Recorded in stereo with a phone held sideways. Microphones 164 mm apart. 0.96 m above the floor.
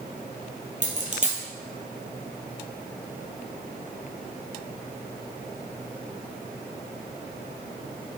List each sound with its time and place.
0.8 s a dropped coin: 50° right (ahead or behind), 2 m